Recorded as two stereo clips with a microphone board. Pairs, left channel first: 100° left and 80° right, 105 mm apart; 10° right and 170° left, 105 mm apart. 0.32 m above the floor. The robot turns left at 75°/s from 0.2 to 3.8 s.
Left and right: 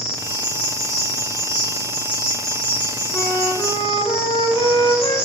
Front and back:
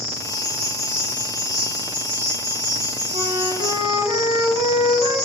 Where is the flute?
Straight behind, 1.0 m; by 5.2 s 130° left, 1.0 m.